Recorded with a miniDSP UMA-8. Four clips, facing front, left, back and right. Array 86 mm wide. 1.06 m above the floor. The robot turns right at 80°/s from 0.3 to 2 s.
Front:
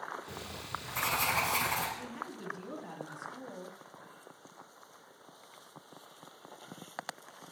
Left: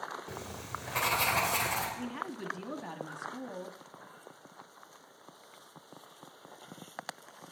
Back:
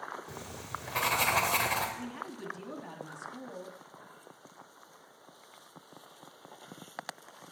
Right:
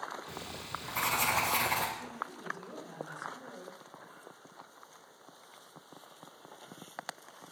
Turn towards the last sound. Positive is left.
turn(degrees=100)